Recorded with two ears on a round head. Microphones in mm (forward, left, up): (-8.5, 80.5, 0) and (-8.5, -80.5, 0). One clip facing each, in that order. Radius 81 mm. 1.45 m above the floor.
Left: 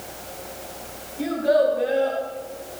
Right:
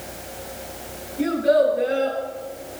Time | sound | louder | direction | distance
1.2 | a child speaking | right 2 dB | 10° right (ahead or behind) | 6 m